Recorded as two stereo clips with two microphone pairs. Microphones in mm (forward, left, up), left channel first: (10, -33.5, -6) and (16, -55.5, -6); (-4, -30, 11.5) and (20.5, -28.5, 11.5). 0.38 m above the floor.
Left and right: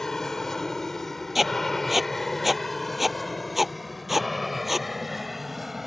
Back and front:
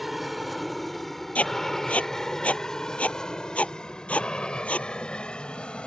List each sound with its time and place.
0.0 s an aircraft: 85° left; by 5.9 s 155° right
1.4 s writing: 155° right